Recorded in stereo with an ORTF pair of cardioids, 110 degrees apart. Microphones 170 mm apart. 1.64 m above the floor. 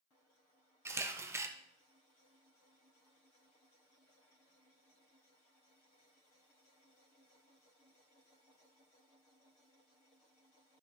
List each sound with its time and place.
0.8 s a camera shutter: 15° right, 1.0 m